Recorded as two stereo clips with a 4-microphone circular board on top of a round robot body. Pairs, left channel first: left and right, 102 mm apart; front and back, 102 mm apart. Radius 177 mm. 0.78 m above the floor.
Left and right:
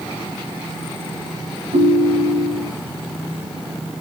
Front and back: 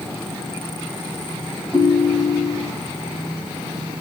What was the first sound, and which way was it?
A ringtone, 100° right.